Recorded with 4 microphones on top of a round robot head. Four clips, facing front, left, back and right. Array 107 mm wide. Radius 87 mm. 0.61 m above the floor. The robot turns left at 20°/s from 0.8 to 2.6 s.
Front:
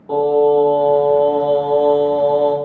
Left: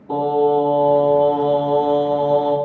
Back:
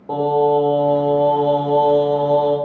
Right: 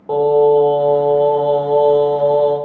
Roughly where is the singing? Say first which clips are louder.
Right 5 dB, front 3 dB; right.